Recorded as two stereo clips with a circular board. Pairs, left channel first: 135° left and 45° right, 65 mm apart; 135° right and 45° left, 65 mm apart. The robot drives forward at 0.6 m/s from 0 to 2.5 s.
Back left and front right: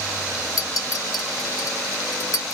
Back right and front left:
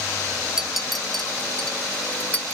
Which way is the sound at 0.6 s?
125° left.